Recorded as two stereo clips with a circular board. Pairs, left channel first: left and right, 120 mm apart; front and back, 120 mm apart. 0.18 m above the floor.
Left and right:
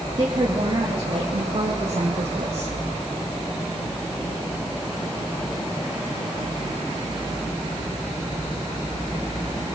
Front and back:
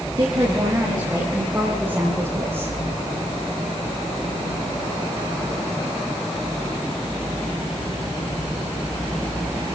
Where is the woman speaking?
135° right, 2.5 m; by 2.8 s 115° right, 5.5 m.